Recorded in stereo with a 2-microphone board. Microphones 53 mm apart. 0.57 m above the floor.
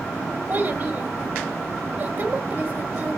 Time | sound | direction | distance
0.5 | a child speaking | 30° right (ahead or behind) | 2.5 m